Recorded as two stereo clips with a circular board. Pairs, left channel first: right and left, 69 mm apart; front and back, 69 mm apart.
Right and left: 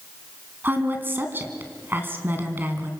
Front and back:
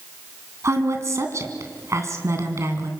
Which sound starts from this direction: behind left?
A woman speaking, at 0.6 s.